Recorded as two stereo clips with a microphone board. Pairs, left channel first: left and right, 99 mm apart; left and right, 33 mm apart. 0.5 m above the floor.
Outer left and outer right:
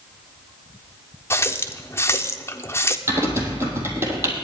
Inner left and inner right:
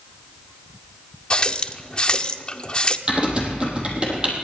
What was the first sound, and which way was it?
A running tap, 25° left (ahead or behind).